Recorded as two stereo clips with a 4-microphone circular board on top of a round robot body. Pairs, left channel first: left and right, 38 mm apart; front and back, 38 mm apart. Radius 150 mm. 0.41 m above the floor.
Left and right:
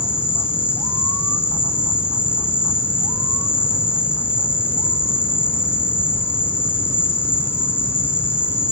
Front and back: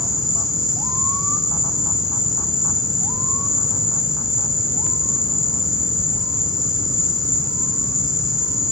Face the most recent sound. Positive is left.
turn(degrees=100)